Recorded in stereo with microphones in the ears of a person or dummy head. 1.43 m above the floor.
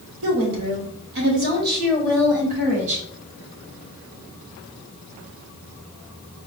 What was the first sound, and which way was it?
A woman speaking, 75° right (ahead or behind).